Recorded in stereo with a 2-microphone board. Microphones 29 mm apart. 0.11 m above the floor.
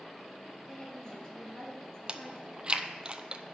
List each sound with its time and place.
0.7 s a woman speaking: 20° left (ahead or behind), 2.5 m
2.1 s chewing: 30° right (ahead or behind), 0.5 m